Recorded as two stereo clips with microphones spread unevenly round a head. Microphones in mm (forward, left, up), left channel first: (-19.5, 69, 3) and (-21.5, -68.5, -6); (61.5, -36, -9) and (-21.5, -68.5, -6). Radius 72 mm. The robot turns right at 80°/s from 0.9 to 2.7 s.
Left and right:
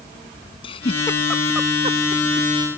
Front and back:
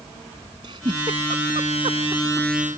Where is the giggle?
140° left; by 2.5 s 95° right.